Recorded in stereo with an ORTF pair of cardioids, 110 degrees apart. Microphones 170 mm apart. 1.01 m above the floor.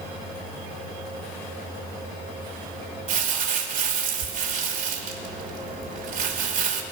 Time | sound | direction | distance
3.1 | crumpling | 50° right | 2.5 m